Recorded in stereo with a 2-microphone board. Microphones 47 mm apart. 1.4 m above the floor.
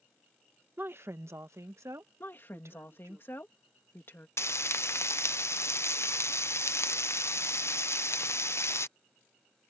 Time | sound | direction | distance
0.8 | a woman speaking | 45° right (ahead or behind) | ?
2.2 | a woman speaking | 50° left (ahead or behind) | ?
4.4 | frying | 65° left (ahead or behind) | ?